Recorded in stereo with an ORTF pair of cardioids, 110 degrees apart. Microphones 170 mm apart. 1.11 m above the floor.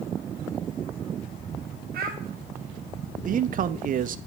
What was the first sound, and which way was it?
A child speaking, 65° right.